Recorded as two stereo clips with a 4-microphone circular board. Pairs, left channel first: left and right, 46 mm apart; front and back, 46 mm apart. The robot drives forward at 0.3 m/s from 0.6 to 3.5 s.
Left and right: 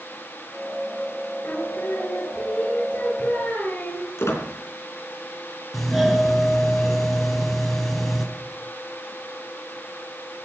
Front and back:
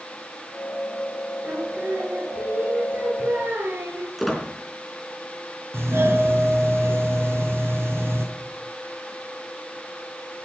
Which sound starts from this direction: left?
A squeak, at 4.2 s.